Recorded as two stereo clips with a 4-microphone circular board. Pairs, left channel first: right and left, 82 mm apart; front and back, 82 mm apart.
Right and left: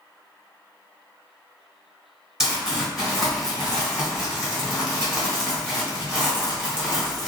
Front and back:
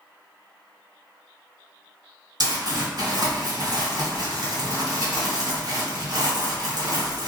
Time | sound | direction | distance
2.4 | crumpling | 175° left | 1.6 m